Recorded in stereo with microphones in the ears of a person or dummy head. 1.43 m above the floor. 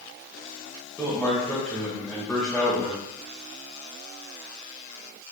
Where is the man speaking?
Centre (ahead or behind), 1.7 m.